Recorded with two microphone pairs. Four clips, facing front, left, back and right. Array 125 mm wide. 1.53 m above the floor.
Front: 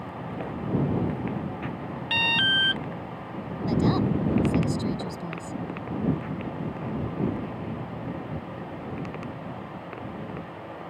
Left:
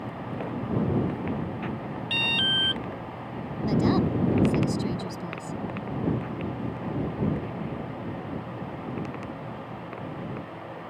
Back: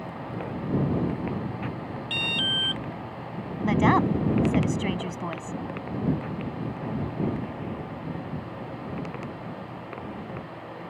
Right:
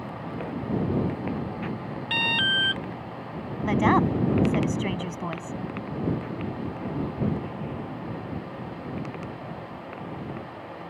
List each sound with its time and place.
2.1 s an alarm: 35° right
3.6 s a woman speaking: 135° right